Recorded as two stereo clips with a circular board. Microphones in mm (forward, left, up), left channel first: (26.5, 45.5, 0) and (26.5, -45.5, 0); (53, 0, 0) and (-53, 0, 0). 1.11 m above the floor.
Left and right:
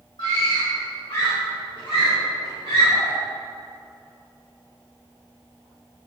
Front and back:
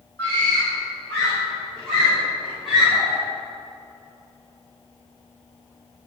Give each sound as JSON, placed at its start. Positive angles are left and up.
{"t": 0.2, "sound": "a scream", "azimuth_deg": 70, "distance_m": 3.5}